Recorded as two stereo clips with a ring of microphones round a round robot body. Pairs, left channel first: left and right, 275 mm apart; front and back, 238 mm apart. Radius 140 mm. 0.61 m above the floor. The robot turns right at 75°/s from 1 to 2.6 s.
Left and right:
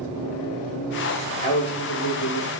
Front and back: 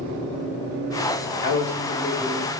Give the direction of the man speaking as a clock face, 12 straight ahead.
11 o'clock.